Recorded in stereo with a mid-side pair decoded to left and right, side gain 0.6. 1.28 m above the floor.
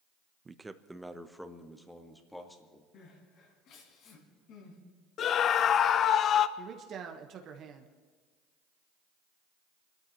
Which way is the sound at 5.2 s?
50° left.